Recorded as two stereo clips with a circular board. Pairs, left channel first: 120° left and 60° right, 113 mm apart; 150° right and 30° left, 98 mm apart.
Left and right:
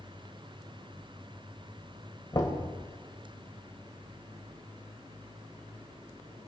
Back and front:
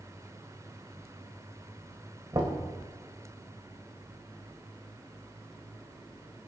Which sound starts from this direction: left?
Knocking, at 2.3 s.